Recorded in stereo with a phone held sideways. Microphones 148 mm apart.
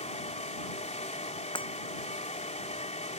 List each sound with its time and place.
0.0 s a fan: 50° left (ahead or behind)
1.6 s breaking glass: 35° left (ahead or behind)